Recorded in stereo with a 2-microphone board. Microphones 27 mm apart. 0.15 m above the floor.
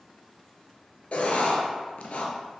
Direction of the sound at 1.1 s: 65° left (ahead or behind).